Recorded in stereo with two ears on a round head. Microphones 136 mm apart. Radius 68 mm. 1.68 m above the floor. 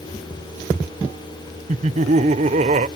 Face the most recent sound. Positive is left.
turn(degrees=-50)  # may be behind; listen again after turning